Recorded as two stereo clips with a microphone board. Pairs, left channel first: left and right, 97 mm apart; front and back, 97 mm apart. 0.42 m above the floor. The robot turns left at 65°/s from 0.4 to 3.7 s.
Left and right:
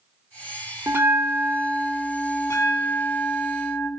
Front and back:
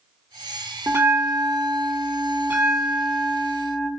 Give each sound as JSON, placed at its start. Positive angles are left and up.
{"t": 0.9, "sound": "a bell", "azimuth_deg": -135, "distance_m": 1.6}